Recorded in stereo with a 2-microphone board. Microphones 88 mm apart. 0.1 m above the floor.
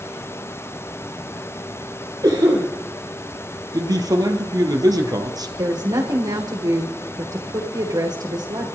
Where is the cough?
50° right (ahead or behind), 3 m.